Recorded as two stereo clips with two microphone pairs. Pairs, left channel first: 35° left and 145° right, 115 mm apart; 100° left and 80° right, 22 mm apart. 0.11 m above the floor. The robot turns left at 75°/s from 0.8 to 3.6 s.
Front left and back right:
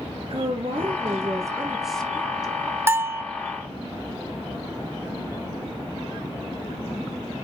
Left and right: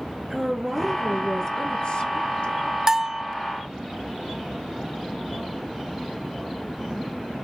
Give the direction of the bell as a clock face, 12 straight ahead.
4 o'clock.